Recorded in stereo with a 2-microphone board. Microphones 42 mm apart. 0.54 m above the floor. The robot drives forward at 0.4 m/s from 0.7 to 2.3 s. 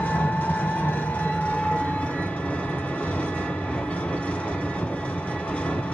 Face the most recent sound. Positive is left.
turn(degrees=30)  # may be behind; listen again after turning